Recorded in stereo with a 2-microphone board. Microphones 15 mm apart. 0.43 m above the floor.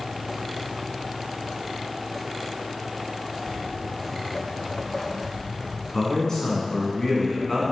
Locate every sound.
3.5 s footsteps: 80° left, 2 m; by 5.8 s 30° left (ahead or behind), 2.5 m
5.9 s a man speaking: 25° left (ahead or behind), 4 m